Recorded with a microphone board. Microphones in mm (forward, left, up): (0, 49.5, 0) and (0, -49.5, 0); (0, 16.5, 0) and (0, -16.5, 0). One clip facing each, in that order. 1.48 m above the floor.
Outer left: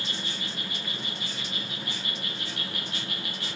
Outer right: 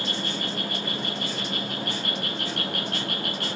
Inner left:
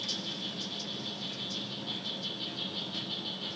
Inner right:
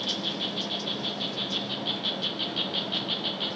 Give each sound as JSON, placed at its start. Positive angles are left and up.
{"t": 0.0, "sound": "an insect", "side_deg": -55, "distance_m": 1.0}